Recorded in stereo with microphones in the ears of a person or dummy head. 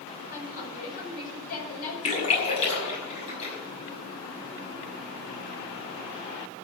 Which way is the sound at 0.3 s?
45° left (ahead or behind).